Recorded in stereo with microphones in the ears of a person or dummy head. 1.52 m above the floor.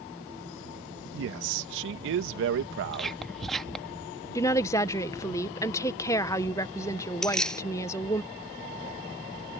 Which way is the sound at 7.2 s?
Centre (ahead or behind).